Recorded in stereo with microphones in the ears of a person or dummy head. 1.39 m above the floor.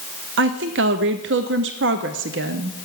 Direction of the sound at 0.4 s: 55° right (ahead or behind).